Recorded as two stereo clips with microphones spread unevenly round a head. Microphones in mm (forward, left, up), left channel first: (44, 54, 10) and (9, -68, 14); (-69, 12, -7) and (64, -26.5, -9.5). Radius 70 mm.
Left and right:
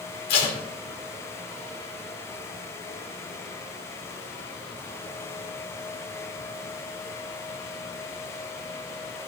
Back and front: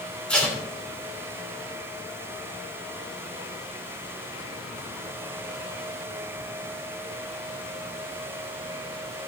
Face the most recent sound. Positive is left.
turn(degrees=80)